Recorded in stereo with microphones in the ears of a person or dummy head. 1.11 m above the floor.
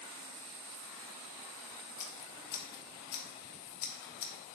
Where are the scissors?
45° left (ahead or behind), 0.7 m.